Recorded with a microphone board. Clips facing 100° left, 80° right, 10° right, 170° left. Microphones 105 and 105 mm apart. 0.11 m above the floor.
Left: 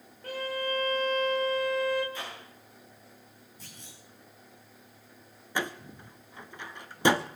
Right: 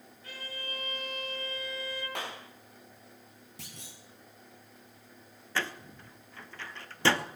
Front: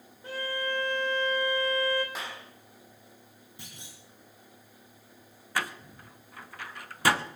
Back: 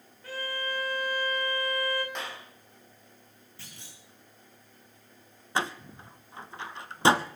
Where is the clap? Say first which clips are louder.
Right 2 dB, back 1 dB; 95° right, 5.5 m.